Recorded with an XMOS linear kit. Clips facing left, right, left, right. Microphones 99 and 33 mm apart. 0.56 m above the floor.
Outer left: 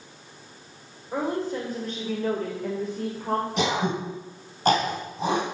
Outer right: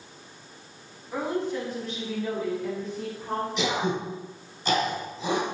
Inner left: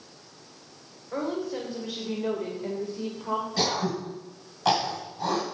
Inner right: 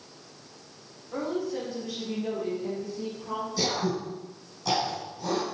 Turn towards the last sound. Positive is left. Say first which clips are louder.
# outer left 2 dB, inner right 2 dB
turn(degrees=60)  # may be behind; listen again after turning